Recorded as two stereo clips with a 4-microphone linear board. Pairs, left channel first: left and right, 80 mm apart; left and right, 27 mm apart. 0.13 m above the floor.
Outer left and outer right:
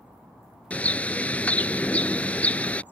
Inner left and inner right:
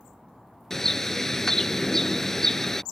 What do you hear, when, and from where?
0.7 s a bird: 15° left (ahead or behind)